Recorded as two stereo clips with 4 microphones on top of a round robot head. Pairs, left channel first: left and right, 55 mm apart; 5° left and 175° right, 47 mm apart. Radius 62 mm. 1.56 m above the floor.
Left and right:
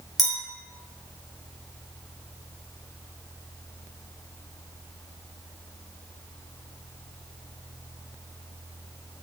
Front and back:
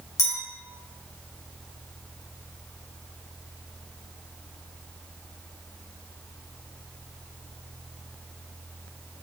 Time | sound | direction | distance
0.2 | a clink | straight ahead | 1.1 m